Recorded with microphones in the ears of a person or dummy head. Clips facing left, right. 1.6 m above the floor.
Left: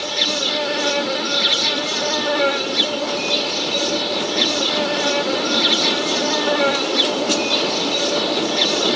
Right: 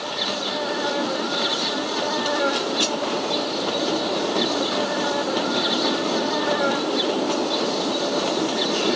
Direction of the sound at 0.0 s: 35° left (ahead or behind).